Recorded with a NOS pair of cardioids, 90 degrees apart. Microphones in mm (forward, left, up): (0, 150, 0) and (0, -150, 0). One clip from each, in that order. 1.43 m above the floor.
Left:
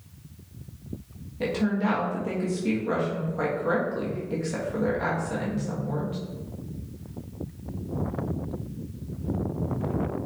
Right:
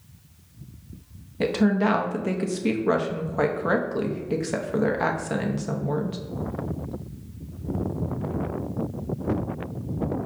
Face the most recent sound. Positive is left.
turn(degrees=-45)